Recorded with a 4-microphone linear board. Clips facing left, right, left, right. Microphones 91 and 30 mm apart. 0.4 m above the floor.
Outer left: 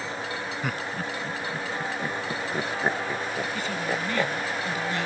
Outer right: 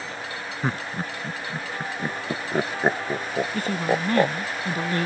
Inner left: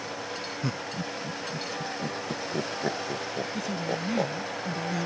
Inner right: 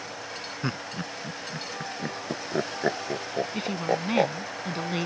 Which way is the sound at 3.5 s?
50° right (ahead or behind).